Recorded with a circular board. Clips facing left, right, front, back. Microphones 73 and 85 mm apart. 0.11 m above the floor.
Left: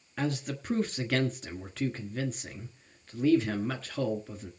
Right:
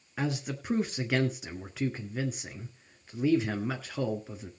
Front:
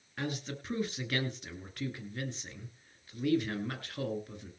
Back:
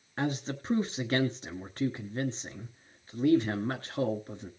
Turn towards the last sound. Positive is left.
turn(degrees=-160)